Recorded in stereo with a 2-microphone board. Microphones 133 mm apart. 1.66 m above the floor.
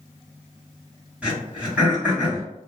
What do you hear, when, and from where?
1.2 s throat clearing: 10° right (ahead or behind), 1.4 m